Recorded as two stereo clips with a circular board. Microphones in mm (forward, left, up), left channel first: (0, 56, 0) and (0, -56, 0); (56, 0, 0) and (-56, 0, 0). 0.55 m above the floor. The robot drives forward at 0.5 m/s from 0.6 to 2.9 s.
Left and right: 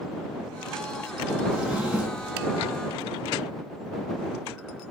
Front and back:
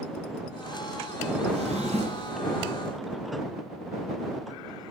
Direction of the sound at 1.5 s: 170° right.